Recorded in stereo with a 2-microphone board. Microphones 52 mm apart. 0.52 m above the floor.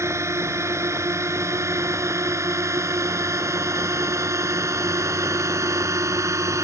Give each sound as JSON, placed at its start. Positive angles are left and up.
{"t": 0.0, "sound": "a drone", "side_deg": -60}